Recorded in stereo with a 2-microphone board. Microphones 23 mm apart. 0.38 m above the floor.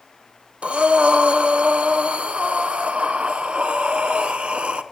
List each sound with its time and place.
0.6 s breathing: 75° right (ahead or behind), 0.6 m